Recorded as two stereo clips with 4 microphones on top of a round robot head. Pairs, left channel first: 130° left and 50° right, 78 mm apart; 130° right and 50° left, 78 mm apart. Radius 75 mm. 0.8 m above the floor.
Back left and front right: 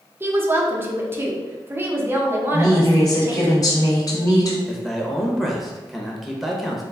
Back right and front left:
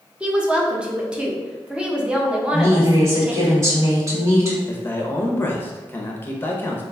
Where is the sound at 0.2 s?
20° right, 0.9 m.